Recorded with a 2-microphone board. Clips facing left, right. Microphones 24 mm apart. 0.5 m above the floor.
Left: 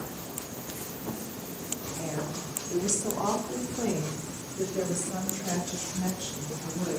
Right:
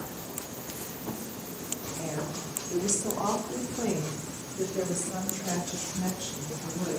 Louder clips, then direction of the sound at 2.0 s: Even; 10° right (ahead or behind).